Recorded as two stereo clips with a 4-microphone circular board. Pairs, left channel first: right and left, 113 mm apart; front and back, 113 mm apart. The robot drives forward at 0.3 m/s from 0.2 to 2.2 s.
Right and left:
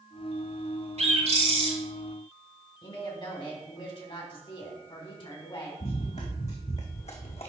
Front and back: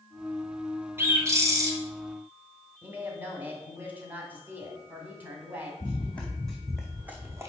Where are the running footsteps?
70° right, 1.5 m; by 7.5 s 120° right, 1.0 m.